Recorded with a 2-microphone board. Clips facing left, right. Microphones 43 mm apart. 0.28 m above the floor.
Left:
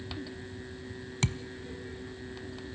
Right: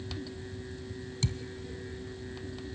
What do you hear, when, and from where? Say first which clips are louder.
1.2 s a thud: left 3 dB; 45° left (ahead or behind), 0.5 m